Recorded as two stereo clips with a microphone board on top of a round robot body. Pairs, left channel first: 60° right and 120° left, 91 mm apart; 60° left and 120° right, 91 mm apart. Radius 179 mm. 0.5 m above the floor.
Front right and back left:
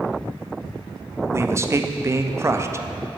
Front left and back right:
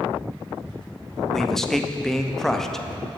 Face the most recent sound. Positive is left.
turn(degrees=145)